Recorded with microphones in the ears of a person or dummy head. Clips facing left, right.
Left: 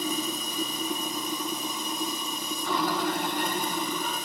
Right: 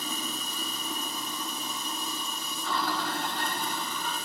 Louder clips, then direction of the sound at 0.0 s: Left 6 dB; 15° left (ahead or behind).